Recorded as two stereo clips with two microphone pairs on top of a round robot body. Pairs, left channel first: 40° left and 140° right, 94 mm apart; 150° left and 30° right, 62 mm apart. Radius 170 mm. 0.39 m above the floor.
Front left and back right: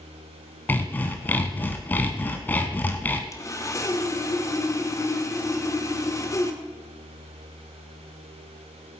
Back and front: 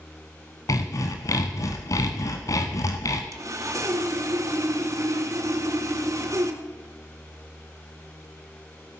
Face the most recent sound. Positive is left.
turn(degrees=-15)